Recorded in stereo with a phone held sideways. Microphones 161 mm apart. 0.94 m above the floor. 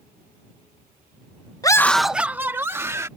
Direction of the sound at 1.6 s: 25° left (ahead or behind).